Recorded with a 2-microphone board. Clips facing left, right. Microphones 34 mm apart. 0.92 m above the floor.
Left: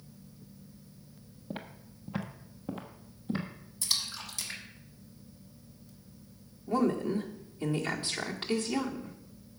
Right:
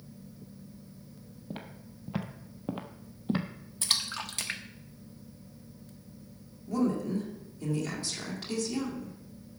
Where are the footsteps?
5° left (ahead or behind), 1.1 m; by 3.5 s 45° right (ahead or behind), 1.3 m.